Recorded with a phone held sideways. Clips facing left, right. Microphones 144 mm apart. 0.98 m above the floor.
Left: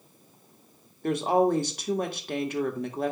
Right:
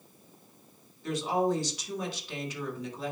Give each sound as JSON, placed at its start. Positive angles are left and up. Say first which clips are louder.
{"t": 1.0, "sound": "a woman speaking", "louder": "left 5 dB", "side_deg": 60, "distance_m": 1.7}